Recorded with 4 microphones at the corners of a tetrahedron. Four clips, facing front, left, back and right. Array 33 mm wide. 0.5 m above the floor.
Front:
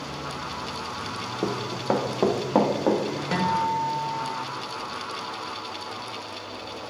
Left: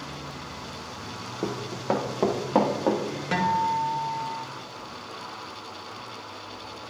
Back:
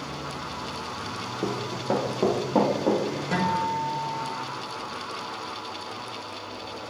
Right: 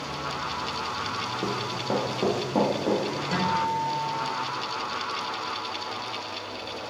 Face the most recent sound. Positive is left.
turn(degrees=50)